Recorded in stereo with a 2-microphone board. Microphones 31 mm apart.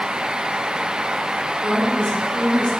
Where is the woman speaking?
35° left (ahead or behind), 3 m; by 2.7 s 45° left (ahead or behind), 2.5 m.